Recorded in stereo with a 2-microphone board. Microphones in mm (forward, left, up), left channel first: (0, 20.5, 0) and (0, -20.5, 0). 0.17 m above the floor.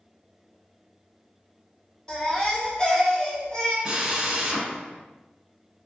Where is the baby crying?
15° left (ahead or behind), 1.7 m.